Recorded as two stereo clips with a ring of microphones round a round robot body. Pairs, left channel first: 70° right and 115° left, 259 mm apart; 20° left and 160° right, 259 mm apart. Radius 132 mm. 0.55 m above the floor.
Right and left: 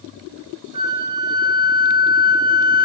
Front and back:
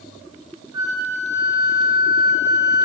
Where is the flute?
175° right, 8 m.